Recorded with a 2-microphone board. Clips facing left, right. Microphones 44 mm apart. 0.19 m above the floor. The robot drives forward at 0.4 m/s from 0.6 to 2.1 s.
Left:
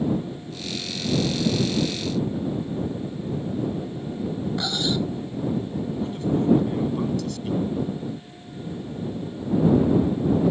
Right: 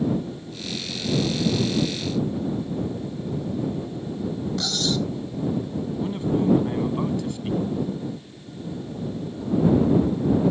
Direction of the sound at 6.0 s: 20° right (ahead or behind).